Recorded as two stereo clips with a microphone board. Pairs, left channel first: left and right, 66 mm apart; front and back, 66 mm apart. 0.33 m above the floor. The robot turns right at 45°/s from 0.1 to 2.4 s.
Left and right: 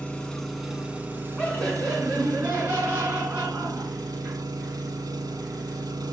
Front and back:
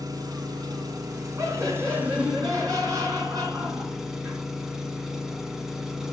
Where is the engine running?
160° left, 0.9 m; by 6.1 s 95° right, 0.9 m.